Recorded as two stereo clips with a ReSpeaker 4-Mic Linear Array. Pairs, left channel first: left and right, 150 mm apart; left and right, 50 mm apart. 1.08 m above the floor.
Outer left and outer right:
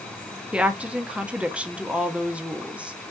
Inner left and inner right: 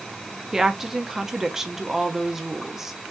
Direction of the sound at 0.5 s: 10° right (ahead or behind).